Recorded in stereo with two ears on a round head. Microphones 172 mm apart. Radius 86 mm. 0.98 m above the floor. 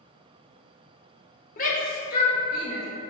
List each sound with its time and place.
1.6 s a shout: 40° left (ahead or behind), 0.7 m; by 2.9 s 50° left (ahead or behind), 1.3 m